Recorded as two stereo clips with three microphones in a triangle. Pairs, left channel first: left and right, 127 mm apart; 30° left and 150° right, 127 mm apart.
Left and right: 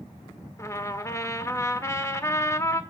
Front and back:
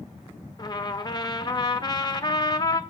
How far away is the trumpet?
About 1.1 m.